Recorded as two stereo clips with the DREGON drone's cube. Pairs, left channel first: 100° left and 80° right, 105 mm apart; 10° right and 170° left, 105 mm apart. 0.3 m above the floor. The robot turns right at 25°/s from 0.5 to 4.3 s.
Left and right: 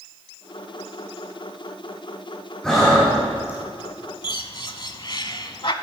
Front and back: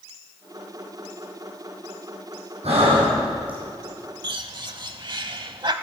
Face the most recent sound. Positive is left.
turn(degrees=135)